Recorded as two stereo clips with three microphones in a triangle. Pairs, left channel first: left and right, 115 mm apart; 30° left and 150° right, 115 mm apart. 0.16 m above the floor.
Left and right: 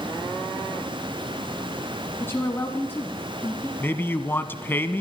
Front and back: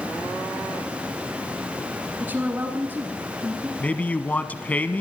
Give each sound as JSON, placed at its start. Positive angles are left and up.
{"t": 2.2, "sound": "a woman speaking", "azimuth_deg": 145, "distance_m": 1.8}
{"t": 3.8, "sound": "a man speaking", "azimuth_deg": 75, "distance_m": 1.1}